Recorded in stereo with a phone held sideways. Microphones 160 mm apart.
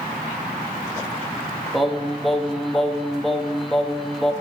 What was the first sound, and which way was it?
Singing, centre (ahead or behind).